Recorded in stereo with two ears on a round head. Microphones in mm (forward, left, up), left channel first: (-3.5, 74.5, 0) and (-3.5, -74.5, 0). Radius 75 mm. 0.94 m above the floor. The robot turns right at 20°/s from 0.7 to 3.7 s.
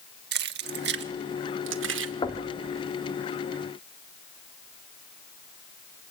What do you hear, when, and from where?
0.3 s keys jangling: 70° right (ahead or behind), 1.4 m; by 2.1 s 80° right, 1.4 m
2.2 s knocking: 25° left (ahead or behind), 1.9 m; by 2.5 s 30° left (ahead or behind), 1.9 m